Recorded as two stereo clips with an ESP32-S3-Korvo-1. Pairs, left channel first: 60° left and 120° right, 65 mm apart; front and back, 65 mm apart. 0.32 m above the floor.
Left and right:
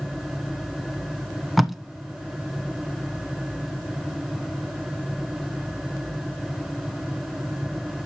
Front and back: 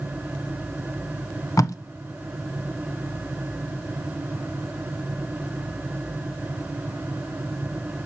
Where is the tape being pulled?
30° right, 0.5 m.